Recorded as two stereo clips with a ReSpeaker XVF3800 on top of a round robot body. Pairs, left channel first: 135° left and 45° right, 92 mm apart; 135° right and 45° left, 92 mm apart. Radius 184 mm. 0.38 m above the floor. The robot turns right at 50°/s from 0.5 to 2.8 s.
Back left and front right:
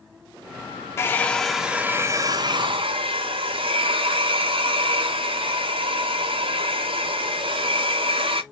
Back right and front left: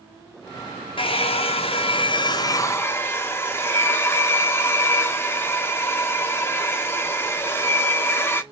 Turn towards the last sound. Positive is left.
turn(degrees=-70)